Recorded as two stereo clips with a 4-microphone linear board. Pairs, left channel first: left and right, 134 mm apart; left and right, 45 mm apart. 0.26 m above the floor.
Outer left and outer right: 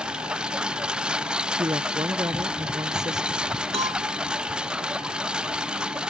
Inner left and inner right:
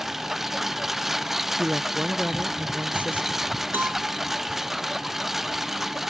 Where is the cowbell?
50° right (ahead or behind).